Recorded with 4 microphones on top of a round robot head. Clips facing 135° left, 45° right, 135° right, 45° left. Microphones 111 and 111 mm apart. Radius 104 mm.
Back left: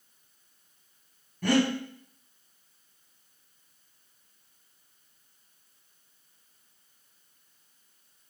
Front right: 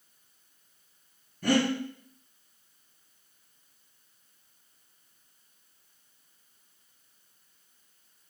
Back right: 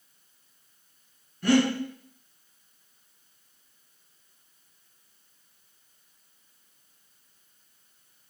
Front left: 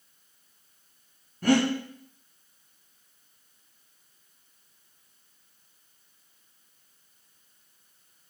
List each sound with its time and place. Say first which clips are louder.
1.4 s breathing: back left 1 dB, back right 1 dB; 100° left, 1.1 m